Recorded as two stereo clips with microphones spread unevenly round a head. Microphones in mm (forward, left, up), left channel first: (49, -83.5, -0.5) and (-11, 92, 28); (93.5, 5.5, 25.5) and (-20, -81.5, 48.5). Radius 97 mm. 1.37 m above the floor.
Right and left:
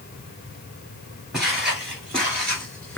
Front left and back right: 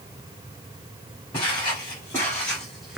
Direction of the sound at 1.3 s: 40° left.